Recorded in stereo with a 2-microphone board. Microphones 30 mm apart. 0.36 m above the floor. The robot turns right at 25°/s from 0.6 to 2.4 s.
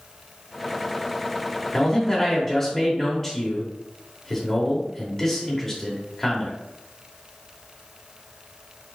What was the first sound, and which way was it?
A man speaking, 15° left (ahead or behind).